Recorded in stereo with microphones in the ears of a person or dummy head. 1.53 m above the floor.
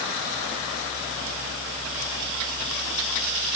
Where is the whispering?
I don't hear whispering.